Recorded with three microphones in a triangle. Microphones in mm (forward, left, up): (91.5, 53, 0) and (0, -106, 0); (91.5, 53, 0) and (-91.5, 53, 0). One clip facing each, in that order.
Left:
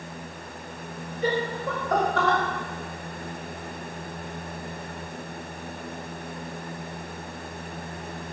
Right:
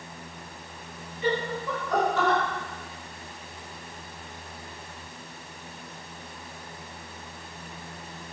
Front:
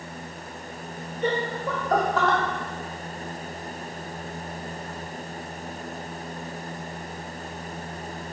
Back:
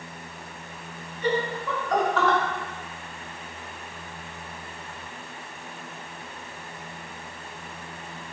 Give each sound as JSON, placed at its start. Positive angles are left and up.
{"t": 1.2, "sound": "laughter", "azimuth_deg": 20, "distance_m": 2.0}